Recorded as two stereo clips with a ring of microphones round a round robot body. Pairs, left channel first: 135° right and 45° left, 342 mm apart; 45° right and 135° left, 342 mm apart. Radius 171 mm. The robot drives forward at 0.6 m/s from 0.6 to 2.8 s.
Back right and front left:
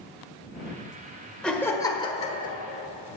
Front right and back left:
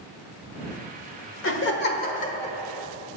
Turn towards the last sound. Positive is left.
turn(degrees=-115)